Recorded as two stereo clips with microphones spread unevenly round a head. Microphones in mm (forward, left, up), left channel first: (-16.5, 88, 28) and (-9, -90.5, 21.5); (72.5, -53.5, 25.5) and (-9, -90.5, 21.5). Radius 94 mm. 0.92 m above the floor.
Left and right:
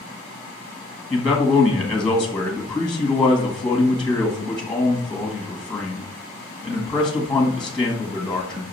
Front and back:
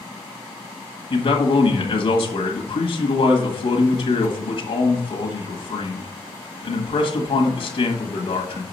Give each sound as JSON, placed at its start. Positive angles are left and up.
{"t": 1.1, "sound": "a man speaking", "azimuth_deg": 5, "distance_m": 1.7}